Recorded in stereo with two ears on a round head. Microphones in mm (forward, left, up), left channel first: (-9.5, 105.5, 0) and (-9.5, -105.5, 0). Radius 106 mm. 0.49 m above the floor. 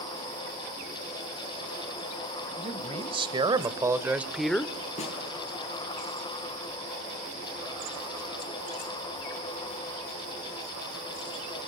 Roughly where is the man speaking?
Right.